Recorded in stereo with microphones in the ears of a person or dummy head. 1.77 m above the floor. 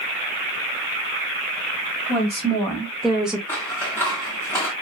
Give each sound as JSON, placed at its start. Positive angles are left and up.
{"t": 2.1, "sound": "a woman speaking", "side_deg": 5, "distance_m": 1.2}
{"t": 3.5, "sound": "scissors", "side_deg": 10, "distance_m": 1.1}